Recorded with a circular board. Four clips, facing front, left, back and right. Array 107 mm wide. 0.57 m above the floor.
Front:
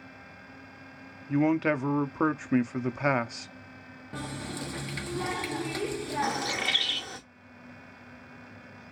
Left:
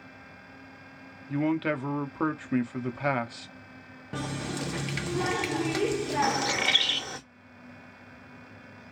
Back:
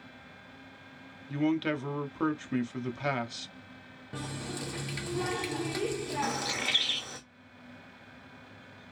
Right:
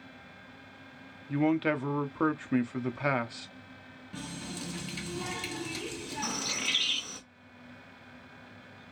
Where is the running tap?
85° left, 0.7 m.